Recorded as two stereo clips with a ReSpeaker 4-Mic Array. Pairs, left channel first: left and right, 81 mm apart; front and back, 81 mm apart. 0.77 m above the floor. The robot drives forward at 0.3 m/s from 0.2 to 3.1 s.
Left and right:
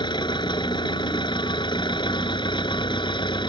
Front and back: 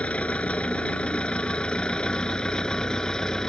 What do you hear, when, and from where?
0.0 s an engine running: 75° left; by 3.5 s 80° left